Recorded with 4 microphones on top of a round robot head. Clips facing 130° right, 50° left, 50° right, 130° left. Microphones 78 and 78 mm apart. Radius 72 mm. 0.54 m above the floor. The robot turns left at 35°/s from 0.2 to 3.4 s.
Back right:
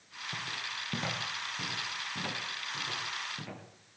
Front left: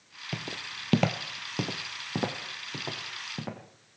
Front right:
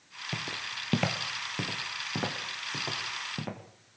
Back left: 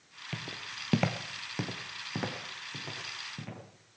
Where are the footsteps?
20° left, 0.8 m; by 3.6 s straight ahead, 3 m.